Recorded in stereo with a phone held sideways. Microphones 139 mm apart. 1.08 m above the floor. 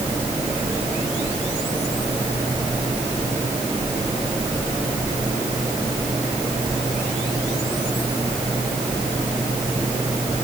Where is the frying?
No frying in this recording.